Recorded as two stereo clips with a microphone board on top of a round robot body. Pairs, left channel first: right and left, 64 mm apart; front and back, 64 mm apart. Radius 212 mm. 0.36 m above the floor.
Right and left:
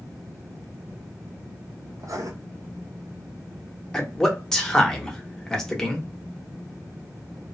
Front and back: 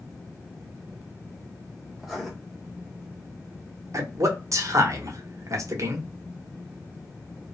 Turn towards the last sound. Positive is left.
turn(degrees=-170)